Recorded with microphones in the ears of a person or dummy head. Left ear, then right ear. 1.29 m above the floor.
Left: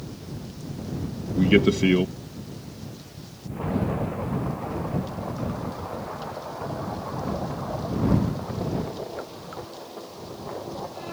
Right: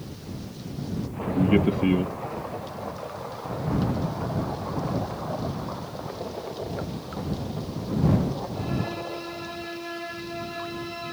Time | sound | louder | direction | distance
1.4 | a man speaking | left 3 dB | 45° left (ahead or behind) | ?